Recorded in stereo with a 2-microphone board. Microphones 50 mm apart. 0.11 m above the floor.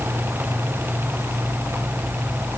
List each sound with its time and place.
Only background noise.